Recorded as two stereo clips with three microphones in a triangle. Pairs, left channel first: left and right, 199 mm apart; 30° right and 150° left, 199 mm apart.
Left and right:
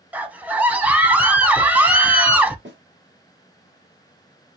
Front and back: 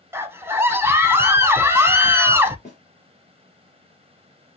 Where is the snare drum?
80° right, 3 m.